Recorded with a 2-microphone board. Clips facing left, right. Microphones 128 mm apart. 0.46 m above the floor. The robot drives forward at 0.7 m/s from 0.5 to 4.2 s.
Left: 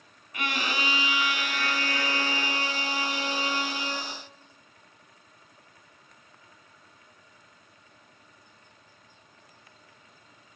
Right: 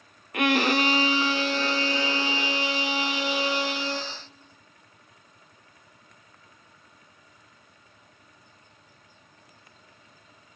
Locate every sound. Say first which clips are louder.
0.3 s a violin: right 9 dB; 60° right (ahead or behind), 0.6 m; by 4.1 s 10° right (ahead or behind), 3 m